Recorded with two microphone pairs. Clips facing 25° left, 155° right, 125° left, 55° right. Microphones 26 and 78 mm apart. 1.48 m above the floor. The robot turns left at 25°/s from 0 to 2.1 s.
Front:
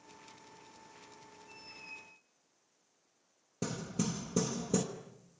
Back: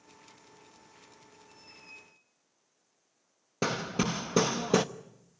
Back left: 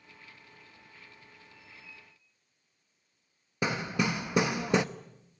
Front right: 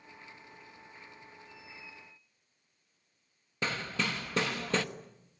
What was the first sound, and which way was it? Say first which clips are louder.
A squeak: front 3 dB, front right 3 dB; 45° right.